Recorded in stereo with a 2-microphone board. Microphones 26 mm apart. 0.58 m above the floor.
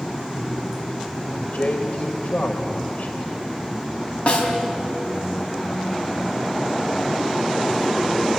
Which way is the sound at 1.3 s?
65° left (ahead or behind).